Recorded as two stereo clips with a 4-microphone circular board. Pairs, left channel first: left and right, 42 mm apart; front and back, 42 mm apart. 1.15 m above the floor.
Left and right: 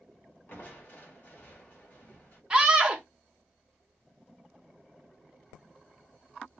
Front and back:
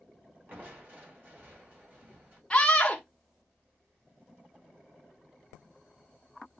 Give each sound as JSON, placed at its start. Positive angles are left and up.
{"t": 0.5, "sound": "crushing", "azimuth_deg": 135, "distance_m": 2.0}
{"t": 2.5, "sound": "a scream", "azimuth_deg": -50, "distance_m": 0.7}